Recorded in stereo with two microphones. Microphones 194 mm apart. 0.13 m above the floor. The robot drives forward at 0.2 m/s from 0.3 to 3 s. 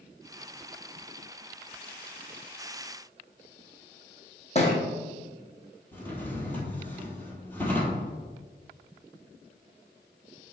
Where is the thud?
35° left (ahead or behind), 1.5 m.